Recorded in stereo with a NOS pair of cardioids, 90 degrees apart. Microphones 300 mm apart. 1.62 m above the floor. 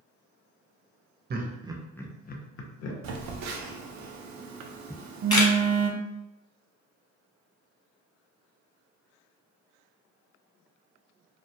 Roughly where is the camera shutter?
Ahead.